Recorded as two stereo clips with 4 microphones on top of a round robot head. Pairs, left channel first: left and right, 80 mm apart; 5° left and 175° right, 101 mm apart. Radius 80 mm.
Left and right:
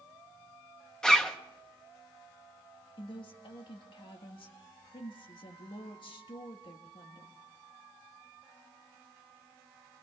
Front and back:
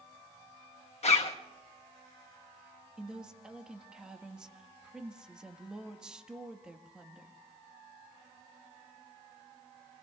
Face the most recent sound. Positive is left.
turn(degrees=100)